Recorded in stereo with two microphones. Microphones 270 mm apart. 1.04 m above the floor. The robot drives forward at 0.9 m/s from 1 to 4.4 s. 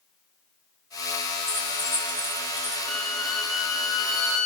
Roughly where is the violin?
Centre.